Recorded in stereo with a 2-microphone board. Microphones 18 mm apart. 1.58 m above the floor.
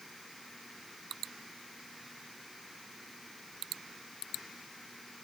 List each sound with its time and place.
Only background noise.